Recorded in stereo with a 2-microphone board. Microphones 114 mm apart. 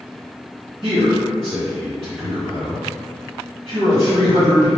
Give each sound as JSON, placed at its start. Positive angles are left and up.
{"t": 0.8, "sound": "a man speaking", "side_deg": -50, "distance_m": 1.9}